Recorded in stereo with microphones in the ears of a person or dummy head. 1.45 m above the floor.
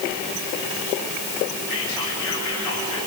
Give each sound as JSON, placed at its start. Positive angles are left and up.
{"t": 1.7, "sound": "whispering", "side_deg": 85, "distance_m": 3.5}